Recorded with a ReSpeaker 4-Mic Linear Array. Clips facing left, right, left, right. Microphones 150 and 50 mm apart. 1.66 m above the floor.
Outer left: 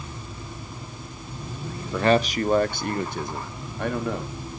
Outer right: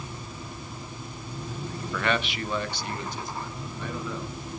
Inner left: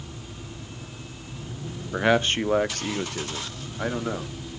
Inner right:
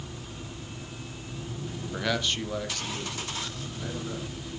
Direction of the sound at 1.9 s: 30° left (ahead or behind).